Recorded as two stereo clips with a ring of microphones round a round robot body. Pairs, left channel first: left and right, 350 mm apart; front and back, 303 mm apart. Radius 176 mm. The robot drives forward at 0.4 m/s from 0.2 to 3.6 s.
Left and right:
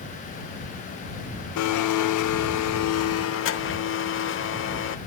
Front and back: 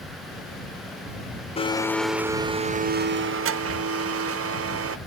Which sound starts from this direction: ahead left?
A blender, at 1.6 s.